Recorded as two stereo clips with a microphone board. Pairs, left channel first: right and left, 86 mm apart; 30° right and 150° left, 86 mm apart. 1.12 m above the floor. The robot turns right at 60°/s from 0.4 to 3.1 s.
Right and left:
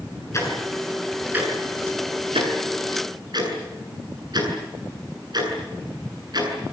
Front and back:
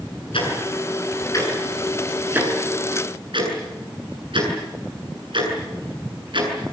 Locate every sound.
0.3 s ticking: 35° right, 8 m; by 6.5 s 125° left, 8 m